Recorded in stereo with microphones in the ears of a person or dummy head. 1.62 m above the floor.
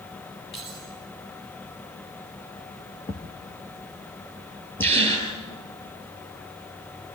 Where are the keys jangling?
25° left (ahead or behind), 9.5 m.